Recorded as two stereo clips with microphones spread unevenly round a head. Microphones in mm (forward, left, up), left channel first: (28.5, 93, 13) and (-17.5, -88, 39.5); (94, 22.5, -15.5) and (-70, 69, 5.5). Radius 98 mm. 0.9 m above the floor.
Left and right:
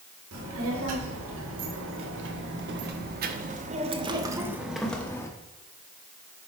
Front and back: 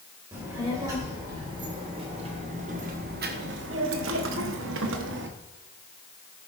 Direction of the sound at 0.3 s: 120° right.